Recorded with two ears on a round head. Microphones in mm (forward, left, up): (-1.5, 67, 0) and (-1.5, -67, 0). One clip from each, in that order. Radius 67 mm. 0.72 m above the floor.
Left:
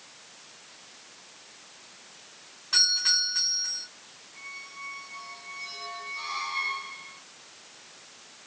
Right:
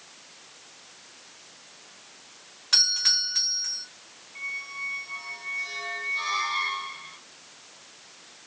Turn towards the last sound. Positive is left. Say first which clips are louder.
# right 8 dB
turn(degrees=-60)  # may be behind; listen again after turning